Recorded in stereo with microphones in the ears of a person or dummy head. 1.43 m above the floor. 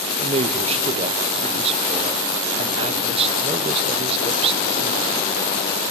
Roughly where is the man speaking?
Right.